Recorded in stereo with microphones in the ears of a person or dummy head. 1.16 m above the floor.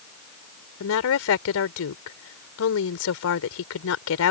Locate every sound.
0.8 s a woman speaking: 70° left (ahead or behind)